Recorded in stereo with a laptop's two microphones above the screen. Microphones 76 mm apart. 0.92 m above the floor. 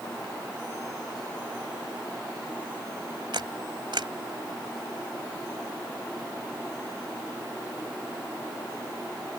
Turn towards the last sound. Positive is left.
turn(degrees=-80)